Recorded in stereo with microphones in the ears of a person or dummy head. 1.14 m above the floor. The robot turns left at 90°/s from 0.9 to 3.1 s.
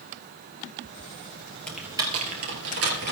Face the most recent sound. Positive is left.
turn(degrees=-55)  # may be behind; listen again after turning